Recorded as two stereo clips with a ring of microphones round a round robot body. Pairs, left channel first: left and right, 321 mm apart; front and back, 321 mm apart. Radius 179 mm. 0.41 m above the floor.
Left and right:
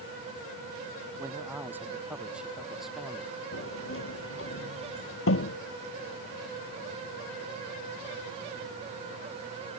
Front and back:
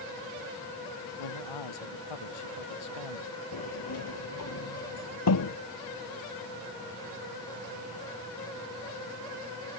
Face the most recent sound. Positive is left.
turn(degrees=40)